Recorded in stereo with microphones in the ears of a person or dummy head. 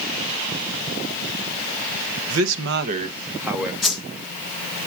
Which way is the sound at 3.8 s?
Centre (ahead or behind).